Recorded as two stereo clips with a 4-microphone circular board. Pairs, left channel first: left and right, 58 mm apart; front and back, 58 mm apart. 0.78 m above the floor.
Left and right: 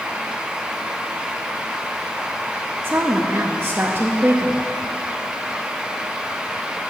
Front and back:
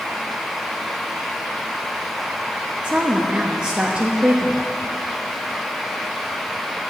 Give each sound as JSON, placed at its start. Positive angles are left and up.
{"t": 2.8, "sound": "a woman speaking", "azimuth_deg": -120, "distance_m": 0.7}